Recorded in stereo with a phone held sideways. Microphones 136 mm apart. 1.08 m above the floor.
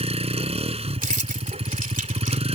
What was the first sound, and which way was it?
A vehicle, 50° right (ahead or behind).